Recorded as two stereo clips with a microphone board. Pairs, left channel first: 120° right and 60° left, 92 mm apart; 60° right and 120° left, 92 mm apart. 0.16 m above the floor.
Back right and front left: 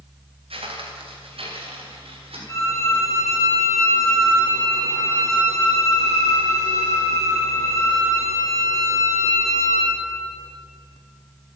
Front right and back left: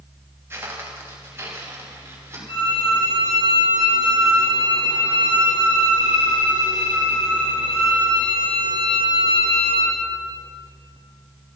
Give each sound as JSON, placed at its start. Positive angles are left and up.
{"t": 0.5, "sound": "footsteps", "azimuth_deg": 55, "distance_m": 4.0}
{"t": 2.5, "sound": "a violin", "azimuth_deg": -65, "distance_m": 5.5}